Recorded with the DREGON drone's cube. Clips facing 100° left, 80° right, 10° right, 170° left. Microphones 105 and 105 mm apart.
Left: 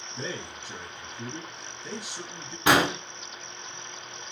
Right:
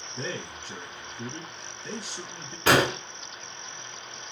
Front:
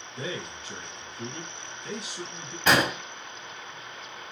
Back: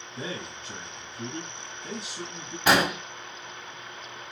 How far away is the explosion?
About 1.0 m.